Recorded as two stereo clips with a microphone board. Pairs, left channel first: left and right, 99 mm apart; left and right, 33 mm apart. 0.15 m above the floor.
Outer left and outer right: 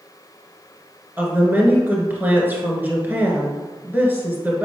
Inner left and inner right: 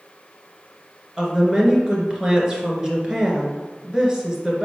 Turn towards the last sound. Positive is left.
turn(degrees=-20)  # may be behind; listen again after turning